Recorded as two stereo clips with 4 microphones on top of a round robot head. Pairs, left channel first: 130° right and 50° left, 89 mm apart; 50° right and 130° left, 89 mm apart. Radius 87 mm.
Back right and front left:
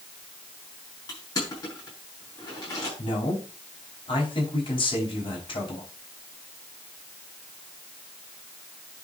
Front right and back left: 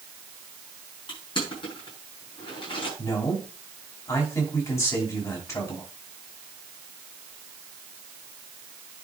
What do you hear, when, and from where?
1.1 s crushing: 80° right, 6 m
3.0 s a man speaking: 105° right, 5 m